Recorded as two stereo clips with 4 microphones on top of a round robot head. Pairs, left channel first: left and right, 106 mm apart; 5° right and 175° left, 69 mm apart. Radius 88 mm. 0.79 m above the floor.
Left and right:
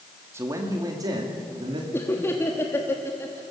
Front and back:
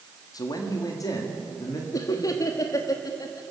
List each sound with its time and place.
0.3 s a man speaking: 25° right, 1.9 m; by 1.8 s 45° right, 2.5 m
1.9 s laughter: 25° left, 1.4 m